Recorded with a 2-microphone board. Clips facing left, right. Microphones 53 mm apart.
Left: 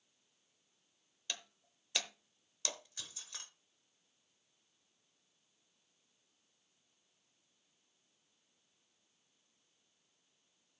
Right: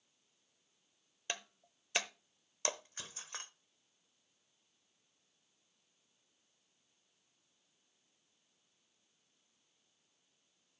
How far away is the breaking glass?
About 0.9 m.